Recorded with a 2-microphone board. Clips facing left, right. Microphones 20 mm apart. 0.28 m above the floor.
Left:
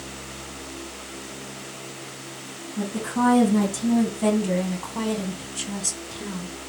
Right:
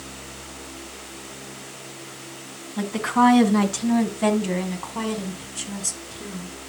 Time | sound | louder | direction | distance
2.8 | a woman speaking | right 5 dB | 55° right (ahead or behind) | 3 m